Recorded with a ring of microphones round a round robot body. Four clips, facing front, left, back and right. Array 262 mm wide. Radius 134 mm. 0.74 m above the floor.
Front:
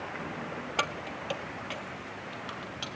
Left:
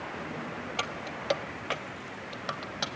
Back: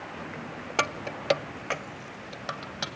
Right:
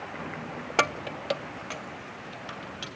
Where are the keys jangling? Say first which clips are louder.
Right 12 dB, back 5 dB; 110° right, 0.7 m; by 2.9 s 135° left, 3 m.